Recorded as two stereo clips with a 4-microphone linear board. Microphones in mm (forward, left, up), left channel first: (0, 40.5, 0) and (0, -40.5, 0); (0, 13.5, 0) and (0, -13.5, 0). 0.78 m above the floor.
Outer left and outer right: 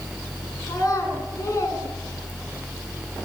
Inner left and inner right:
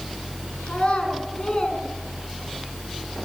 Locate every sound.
0.7 s a child speaking: 50° left (ahead or behind), 5 m; by 2.7 s 30° left (ahead or behind), 4 m